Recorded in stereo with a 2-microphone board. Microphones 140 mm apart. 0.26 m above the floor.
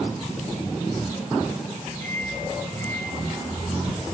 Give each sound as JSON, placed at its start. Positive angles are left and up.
{"t": 2.0, "sound": "a microwave", "side_deg": 15, "distance_m": 6.0}